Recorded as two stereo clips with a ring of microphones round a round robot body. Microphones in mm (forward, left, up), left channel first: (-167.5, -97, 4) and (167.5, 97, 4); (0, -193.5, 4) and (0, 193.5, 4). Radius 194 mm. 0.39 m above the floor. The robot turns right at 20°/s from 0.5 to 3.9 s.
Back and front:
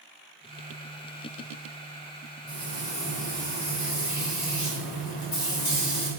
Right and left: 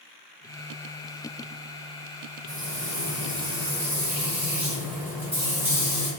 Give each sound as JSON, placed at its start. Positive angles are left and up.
{"t": 2.5, "sound": "frying", "azimuth_deg": 140, "distance_m": 0.8}